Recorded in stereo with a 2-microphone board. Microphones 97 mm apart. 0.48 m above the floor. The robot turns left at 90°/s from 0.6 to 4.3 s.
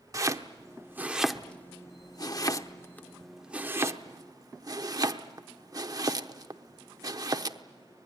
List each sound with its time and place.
0.1 s chopping: 35° right (ahead or behind), 0.8 m; by 7.6 s 40° right (ahead or behind), 0.8 m